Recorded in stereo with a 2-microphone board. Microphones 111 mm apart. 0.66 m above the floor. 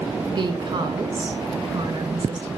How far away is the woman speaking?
About 2 m.